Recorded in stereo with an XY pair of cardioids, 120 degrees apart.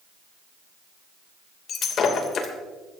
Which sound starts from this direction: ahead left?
Breaking glass, at 1.7 s.